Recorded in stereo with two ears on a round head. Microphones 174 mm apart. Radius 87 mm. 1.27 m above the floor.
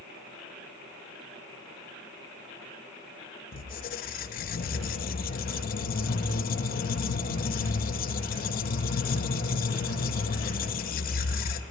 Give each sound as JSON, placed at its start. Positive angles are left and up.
{"t": 3.5, "sound": "a squeak", "side_deg": 45, "distance_m": 0.8}